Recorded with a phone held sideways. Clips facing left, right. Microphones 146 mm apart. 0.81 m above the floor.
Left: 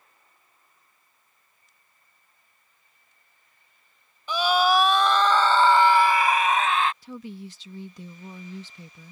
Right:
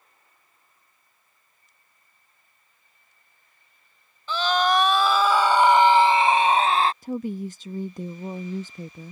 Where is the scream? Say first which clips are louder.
Left 1 dB; 15° left (ahead or behind); by 6.9 s 35° right (ahead or behind).